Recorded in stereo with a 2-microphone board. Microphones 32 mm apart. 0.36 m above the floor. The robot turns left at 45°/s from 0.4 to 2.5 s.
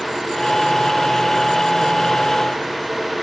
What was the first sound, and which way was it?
Only background noise.